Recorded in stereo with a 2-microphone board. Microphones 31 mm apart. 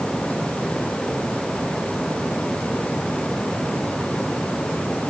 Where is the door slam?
I don't hear a door slam.